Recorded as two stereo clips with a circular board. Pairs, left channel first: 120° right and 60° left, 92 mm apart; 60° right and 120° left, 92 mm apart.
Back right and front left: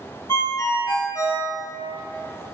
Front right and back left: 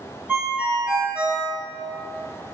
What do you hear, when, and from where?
0.3 s a ringtone: 170° right, 0.7 m